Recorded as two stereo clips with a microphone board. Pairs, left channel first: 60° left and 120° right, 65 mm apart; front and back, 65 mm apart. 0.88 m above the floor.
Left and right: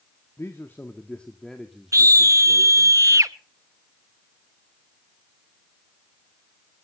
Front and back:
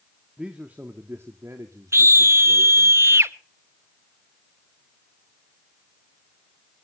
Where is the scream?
145° right, 0.9 m.